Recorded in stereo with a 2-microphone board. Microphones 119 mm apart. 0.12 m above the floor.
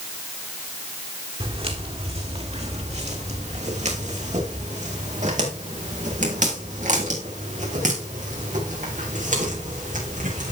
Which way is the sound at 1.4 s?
50° right (ahead or behind).